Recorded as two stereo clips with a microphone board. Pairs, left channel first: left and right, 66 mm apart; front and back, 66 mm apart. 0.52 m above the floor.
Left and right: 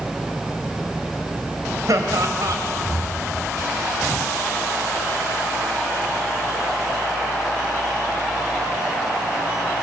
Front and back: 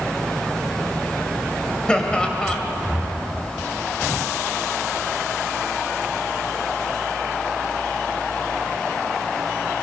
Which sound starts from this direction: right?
Laughter, at 1.9 s.